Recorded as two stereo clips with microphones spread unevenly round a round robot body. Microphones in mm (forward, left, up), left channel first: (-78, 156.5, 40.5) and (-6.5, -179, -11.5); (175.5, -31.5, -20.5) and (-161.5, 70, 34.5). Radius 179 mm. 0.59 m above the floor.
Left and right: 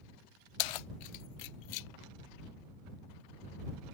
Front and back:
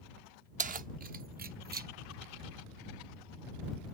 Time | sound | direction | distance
0.6 | keys jangling | 90° left | ?